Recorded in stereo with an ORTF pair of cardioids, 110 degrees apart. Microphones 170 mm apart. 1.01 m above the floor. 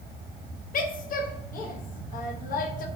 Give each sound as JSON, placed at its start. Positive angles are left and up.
{"t": 0.7, "sound": "a woman speaking", "azimuth_deg": 55, "distance_m": 0.7}